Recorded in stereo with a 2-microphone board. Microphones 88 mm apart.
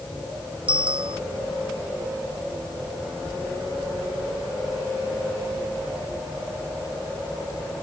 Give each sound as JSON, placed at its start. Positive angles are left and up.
{"t": 0.7, "sound": "a bicycle bell", "side_deg": -80}